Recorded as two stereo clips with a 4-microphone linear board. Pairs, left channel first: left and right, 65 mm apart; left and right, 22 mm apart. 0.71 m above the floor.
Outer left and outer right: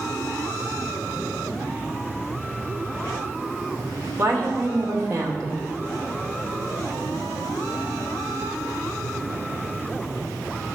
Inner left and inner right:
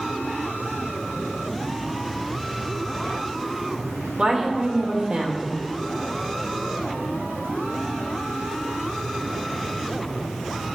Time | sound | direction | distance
4.2 | a woman speaking | 50° right (ahead or behind) | 2.5 m